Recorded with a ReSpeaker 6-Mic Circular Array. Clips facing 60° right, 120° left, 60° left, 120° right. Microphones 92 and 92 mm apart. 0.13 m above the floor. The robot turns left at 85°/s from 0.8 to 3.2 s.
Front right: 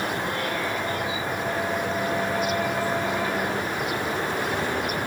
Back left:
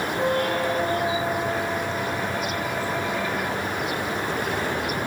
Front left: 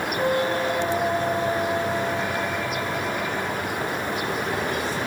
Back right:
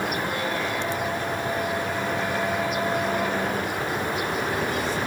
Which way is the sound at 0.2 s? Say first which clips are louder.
Back left 5 dB, front left 5 dB; 100° left.